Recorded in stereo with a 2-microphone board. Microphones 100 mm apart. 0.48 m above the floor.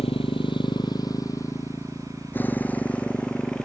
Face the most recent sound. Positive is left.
turn(degrees=10)  # may be behind; listen again after turning